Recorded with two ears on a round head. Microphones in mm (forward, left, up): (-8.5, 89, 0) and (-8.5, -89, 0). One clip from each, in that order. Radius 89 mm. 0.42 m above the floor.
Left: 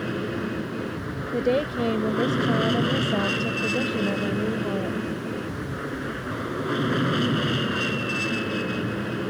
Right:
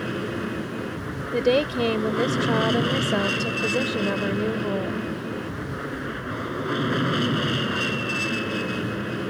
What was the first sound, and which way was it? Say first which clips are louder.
An aircraft: even; 10° right (ahead or behind).